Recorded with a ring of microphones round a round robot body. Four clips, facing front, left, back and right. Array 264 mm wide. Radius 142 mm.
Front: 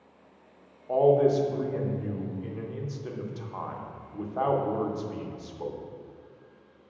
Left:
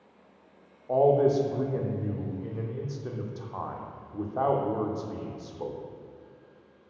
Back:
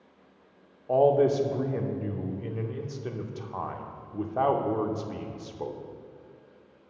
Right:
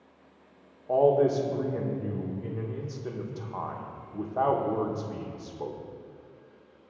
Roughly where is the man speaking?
Behind.